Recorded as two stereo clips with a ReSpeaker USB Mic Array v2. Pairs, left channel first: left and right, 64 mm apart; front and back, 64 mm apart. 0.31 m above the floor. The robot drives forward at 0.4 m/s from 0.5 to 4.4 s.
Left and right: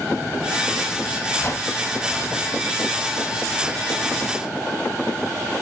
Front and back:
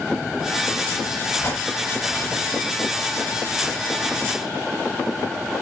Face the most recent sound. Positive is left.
turn(degrees=125)